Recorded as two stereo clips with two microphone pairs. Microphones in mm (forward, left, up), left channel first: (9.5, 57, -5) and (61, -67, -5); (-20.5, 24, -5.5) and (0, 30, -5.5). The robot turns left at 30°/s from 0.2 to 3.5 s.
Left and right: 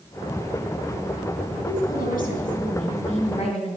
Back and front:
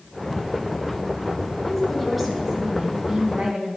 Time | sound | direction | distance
1.6 | a woman speaking | 120° left | 3.5 m